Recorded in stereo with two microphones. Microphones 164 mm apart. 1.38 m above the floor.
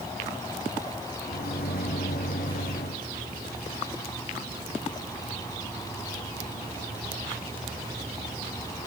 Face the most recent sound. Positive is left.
turn(degrees=65)  # may be behind; listen again after turning